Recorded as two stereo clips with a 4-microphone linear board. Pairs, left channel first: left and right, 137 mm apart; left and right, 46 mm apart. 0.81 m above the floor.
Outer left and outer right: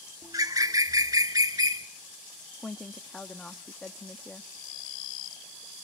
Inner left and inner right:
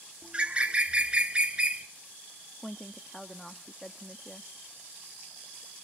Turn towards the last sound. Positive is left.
turn(degrees=10)  # may be behind; listen again after turning